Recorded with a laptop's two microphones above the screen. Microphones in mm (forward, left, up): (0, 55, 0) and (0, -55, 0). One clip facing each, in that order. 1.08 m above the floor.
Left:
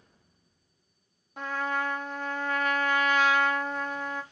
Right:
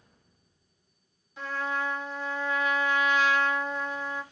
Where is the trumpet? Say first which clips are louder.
Left 1 dB; 55° left (ahead or behind), 0.7 m.